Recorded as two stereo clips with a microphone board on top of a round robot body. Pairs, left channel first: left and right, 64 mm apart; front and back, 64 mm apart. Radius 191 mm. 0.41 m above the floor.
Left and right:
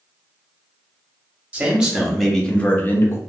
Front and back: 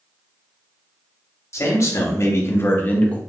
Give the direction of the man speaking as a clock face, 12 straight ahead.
1 o'clock.